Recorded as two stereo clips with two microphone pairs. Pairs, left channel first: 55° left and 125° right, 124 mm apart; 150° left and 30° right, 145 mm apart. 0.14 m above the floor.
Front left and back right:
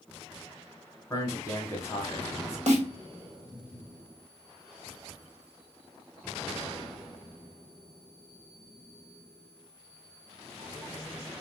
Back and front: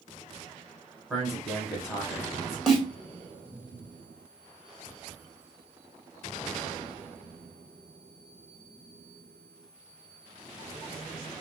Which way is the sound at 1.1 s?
50° left.